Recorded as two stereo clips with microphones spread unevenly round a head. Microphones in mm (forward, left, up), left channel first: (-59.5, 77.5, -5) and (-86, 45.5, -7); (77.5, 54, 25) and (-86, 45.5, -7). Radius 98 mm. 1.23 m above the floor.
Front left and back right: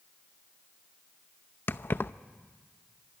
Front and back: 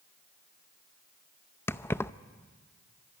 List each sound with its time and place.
1.7 s keys jangling: 70° left, 0.6 m